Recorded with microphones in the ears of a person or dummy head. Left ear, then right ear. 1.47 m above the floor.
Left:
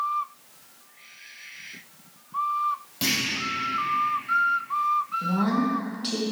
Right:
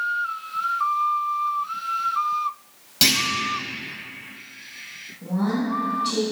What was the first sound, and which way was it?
A clunk, 35° right (ahead or behind).